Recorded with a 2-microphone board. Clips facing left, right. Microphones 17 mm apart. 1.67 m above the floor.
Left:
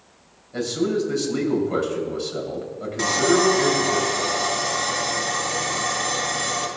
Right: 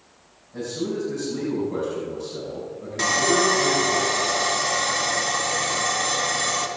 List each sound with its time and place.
0.5 s a man speaking: 75° left (ahead or behind), 4.5 m
3.0 s sawing: 10° right (ahead or behind), 1.7 m